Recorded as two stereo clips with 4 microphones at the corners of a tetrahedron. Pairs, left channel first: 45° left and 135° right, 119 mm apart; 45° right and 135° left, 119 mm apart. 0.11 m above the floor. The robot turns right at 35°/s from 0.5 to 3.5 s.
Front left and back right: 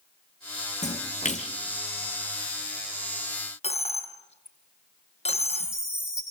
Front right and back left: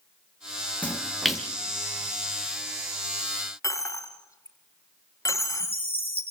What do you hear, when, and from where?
0.8 s a splash: 30° left, 3 m; by 1.5 s 55° left, 3 m
3.6 s a dropped coin: 15° left, 2 m
5.3 s a chime: 85° right, 6 m